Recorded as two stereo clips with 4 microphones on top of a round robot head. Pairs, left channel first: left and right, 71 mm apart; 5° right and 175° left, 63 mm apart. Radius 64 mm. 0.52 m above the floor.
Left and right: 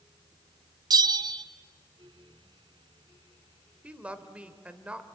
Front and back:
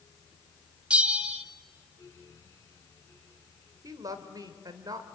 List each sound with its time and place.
0.9 s a bell: 110° right, 1.0 m
3.8 s a woman speaking: 160° right, 2 m